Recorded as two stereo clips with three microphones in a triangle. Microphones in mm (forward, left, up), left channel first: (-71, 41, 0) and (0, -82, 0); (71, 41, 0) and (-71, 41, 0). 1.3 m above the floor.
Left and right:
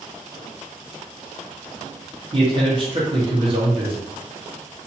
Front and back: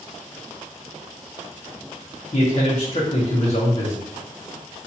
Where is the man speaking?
20° right, 0.9 m.